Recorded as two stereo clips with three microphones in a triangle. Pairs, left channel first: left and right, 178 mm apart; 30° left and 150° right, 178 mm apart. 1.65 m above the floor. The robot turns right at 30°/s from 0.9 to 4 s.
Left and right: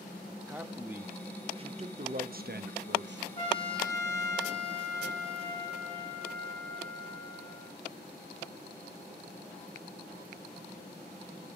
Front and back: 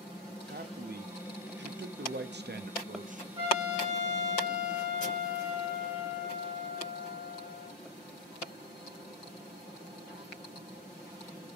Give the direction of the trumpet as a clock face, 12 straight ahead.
7 o'clock.